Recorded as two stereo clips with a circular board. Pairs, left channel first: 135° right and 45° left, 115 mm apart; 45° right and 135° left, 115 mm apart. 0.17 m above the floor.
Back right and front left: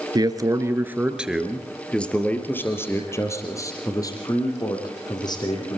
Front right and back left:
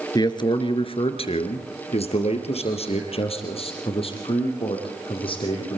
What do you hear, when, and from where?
0.1 s a man speaking: straight ahead, 2.5 m; by 5.8 s 85° right, 8 m